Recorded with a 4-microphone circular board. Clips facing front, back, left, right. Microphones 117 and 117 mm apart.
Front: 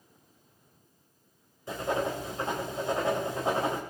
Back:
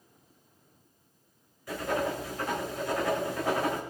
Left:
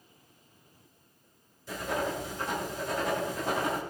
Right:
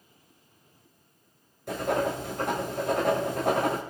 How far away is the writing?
About 4 m.